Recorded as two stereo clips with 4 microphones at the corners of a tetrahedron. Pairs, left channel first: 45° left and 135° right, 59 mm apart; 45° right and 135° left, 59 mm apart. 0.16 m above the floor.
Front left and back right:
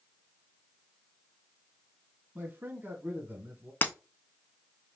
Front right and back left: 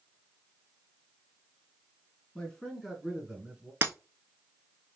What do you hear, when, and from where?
2.4 s a man speaking: 105° right, 1.3 m; by 3.7 s 170° right, 1.4 m
3.8 s breaking glass: 95° left, 0.7 m